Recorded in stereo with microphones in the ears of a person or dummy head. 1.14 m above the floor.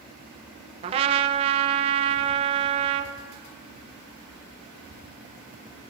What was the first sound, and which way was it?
A trumpet, 30° right (ahead or behind).